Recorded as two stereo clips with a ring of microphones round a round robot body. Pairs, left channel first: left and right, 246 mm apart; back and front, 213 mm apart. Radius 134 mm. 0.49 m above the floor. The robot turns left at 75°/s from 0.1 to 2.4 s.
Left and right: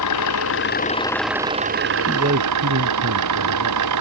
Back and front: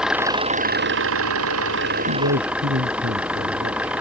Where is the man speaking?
15° right; by 3.9 s 45° right.